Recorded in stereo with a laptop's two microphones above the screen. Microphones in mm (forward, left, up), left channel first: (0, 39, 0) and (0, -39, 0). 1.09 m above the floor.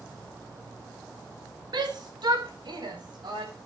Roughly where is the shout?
Right.